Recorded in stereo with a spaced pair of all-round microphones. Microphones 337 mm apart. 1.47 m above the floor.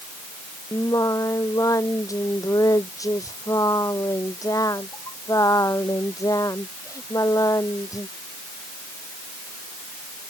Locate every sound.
0.7 s singing: 10° left (ahead or behind)